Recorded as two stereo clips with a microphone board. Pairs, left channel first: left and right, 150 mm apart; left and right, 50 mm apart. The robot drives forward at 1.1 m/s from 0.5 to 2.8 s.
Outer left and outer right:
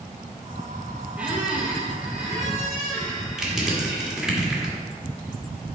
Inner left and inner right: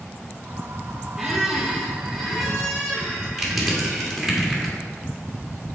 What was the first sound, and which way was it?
A squeak, 10° right (ahead or behind).